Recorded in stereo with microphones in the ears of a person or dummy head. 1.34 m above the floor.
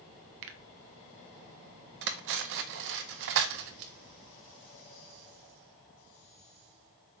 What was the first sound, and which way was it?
A finger snap, 70° right (ahead or behind).